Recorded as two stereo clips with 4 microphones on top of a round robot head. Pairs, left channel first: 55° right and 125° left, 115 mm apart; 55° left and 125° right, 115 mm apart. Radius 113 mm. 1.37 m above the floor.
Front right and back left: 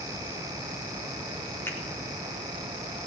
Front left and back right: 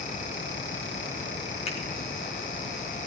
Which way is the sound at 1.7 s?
20° left.